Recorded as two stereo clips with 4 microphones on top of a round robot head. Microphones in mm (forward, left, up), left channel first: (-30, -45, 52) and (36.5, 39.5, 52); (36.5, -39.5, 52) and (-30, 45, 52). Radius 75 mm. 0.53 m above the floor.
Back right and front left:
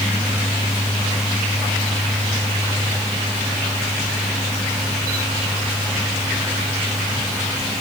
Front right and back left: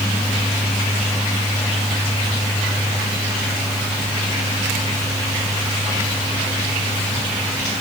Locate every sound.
Only background noise.